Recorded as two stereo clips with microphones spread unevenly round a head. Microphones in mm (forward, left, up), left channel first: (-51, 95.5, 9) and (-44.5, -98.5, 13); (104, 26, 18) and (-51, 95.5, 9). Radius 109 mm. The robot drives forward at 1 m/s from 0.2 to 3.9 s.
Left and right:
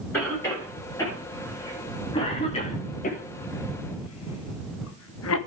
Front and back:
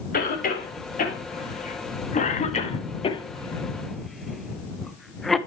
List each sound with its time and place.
0.1 s a cough: 10° left, 4 m; by 5.4 s 65° left, 1.0 m